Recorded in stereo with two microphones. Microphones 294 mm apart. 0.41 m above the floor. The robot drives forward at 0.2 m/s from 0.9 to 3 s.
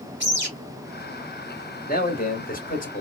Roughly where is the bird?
Right.